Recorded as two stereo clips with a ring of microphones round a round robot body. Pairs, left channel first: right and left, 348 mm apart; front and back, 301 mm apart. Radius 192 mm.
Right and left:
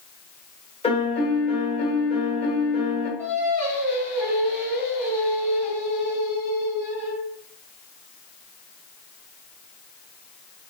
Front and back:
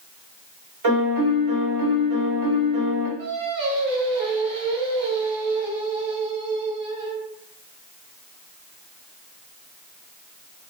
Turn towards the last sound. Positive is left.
turn(degrees=-175)